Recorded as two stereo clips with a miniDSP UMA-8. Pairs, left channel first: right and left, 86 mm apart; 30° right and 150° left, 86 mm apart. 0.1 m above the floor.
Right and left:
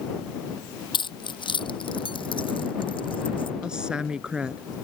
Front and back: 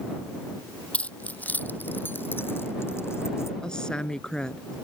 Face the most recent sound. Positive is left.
turn(degrees=30)